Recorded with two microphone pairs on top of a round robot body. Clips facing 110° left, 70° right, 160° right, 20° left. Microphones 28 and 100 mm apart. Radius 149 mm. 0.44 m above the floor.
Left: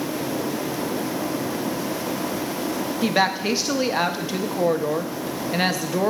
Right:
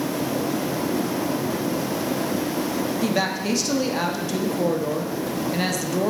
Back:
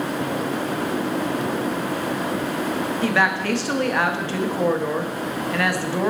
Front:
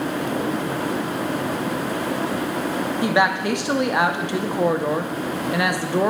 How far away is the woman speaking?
About 1.0 m.